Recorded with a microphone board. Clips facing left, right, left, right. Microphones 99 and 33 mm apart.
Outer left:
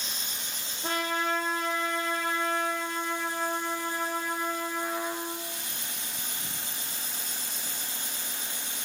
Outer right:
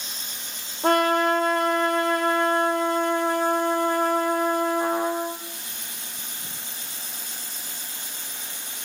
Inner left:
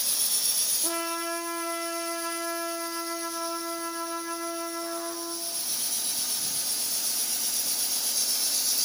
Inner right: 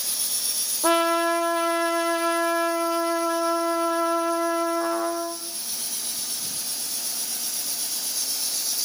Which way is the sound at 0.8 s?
60° right (ahead or behind).